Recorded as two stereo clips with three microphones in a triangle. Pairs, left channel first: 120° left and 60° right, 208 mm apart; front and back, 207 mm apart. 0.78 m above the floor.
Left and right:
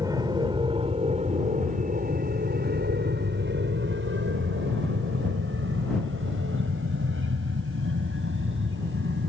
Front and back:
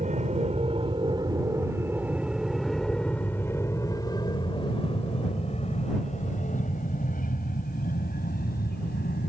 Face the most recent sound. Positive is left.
turn(degrees=-40)